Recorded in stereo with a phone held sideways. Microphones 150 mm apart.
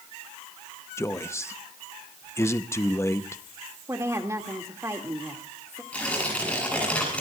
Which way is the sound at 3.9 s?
20° right (ahead or behind).